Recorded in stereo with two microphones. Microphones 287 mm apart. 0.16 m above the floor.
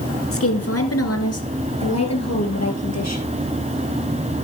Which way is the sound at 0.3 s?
55° left (ahead or behind).